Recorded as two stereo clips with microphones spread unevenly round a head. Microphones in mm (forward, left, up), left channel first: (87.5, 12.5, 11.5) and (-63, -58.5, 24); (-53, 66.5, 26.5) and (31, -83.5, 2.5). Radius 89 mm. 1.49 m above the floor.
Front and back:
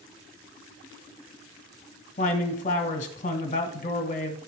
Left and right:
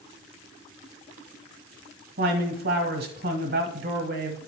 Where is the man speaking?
20° right, 1.6 m.